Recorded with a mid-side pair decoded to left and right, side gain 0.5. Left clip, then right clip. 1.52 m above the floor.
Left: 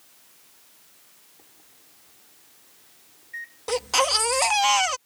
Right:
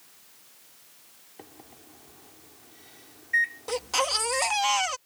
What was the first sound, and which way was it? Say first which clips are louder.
A microwave: right 7 dB; 65° right.